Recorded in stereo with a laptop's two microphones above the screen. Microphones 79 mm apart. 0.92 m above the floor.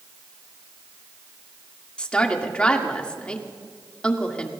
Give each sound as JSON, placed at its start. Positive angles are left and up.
{"t": 2.0, "sound": "a woman speaking", "side_deg": 15, "distance_m": 1.9}